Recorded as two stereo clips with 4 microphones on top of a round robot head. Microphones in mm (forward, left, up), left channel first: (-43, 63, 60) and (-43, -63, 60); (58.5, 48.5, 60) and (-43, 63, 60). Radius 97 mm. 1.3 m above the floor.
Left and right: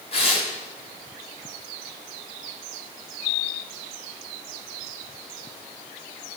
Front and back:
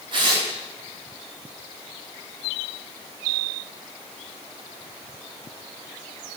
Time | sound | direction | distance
0.1 | tearing paper | 130° left | 3 m